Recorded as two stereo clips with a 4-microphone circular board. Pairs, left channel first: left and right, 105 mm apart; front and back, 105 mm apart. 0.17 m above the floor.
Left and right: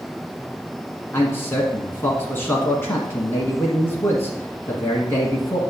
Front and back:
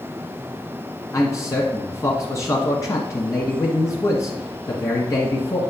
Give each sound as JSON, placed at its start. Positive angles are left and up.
{"t": 1.1, "sound": "a man speaking", "azimuth_deg": 35, "distance_m": 1.3}